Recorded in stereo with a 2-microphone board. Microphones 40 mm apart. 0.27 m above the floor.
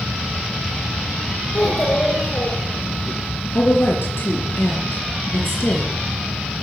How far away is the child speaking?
About 3 m.